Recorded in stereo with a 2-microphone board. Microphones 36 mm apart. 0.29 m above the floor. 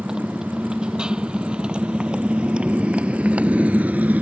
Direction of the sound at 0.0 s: 20° right (ahead or behind).